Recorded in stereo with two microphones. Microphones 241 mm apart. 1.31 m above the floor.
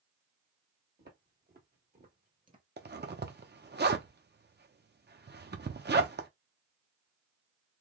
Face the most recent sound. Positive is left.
turn(degrees=-45)  # may be behind; listen again after turning